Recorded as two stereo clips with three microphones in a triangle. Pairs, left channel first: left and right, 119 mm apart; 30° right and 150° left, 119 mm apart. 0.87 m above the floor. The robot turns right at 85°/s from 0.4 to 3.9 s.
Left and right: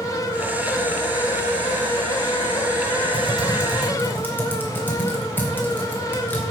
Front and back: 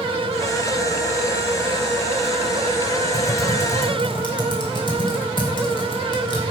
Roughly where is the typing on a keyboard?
Ahead right.